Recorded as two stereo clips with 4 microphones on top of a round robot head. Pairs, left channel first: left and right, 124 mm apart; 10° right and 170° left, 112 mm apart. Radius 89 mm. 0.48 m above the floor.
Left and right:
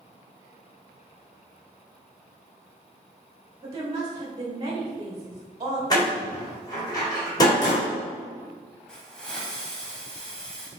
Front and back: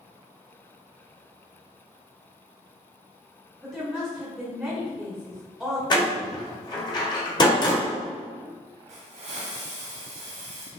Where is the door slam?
30° left, 1.5 m.